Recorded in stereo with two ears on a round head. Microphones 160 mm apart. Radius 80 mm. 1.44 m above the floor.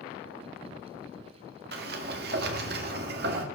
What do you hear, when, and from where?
1.7 s a sliding door: 60° right (ahead or behind), 1.9 m